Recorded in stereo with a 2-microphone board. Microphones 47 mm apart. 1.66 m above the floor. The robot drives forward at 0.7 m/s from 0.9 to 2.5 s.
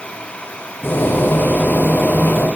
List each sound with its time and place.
Only background noise.